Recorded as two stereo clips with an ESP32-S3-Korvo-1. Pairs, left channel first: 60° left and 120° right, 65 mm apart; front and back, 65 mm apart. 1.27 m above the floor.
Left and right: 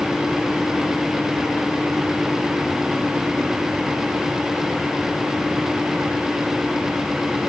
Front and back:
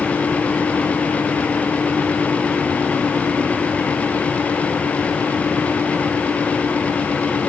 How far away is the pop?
No pop in this recording.